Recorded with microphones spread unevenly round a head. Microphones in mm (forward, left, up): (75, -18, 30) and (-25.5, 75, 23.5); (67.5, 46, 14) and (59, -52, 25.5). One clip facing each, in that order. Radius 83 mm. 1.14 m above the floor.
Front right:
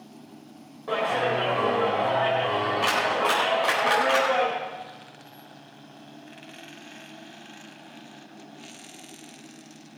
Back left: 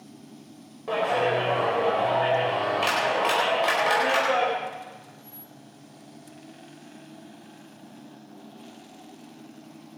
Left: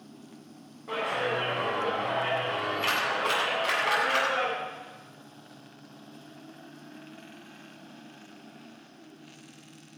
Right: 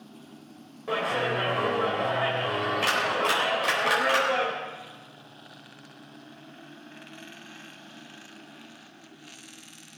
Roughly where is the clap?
Behind right.